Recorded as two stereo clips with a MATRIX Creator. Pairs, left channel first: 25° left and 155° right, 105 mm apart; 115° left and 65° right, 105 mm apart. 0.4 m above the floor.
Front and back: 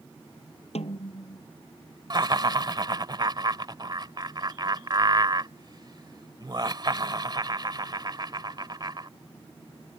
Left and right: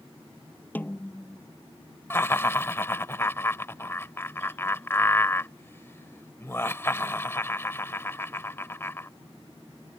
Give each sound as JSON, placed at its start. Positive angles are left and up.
{"t": 0.8, "sound": "a snare drum", "azimuth_deg": 40}
{"t": 2.1, "sound": "laughter", "azimuth_deg": 175}